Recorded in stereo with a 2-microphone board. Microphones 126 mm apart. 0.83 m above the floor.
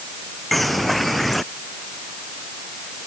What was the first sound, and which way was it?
A bird, centre (ahead or behind).